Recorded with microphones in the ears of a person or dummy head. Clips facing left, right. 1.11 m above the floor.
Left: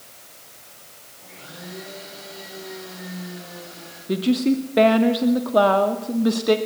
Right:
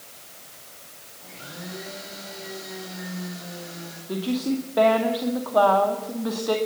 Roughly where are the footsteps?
No footsteps in this recording.